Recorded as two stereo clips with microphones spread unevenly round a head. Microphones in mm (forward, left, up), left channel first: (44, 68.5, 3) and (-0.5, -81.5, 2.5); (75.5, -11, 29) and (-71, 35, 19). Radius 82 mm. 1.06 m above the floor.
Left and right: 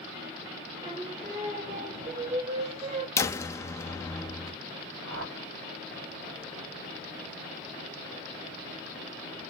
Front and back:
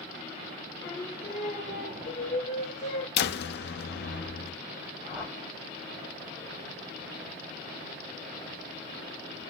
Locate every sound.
0.8 s singing: 60° right, 2 m
3.2 s a door slam: straight ahead, 0.5 m
5.0 s a whoosh: 120° right, 2.5 m